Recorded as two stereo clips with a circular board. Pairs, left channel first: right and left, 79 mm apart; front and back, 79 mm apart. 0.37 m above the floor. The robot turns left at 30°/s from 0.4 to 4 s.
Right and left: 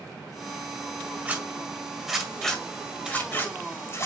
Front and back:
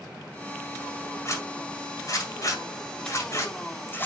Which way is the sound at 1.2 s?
30° left.